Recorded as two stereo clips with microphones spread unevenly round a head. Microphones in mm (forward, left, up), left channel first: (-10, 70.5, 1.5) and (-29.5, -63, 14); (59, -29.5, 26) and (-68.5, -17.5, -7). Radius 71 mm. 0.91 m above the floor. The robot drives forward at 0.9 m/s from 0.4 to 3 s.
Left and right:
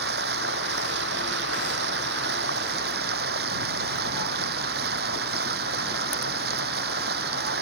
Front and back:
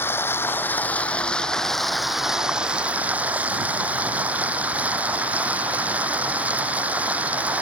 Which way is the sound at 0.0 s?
75° right.